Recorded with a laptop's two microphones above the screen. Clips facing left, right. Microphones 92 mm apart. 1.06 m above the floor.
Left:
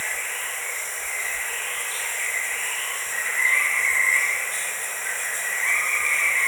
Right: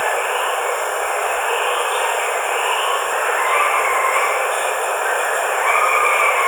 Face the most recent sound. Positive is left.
turn(degrees=-55)  # may be behind; listen again after turning